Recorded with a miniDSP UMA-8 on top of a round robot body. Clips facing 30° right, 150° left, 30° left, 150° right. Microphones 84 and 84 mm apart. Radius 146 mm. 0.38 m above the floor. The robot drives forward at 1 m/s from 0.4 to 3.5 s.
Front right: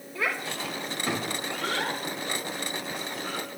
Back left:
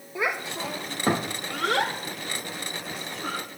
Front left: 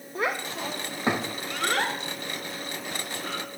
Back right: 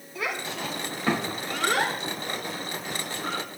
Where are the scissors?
I don't hear scissors.